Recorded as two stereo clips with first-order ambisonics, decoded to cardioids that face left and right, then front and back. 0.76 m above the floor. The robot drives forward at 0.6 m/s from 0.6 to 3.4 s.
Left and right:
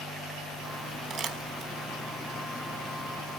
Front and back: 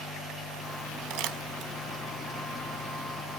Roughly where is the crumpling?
Behind right.